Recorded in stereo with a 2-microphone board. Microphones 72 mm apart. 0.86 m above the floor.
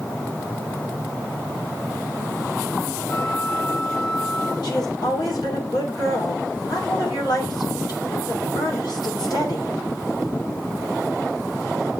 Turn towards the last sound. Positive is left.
turn(degrees=70)  # may be behind; listen again after turning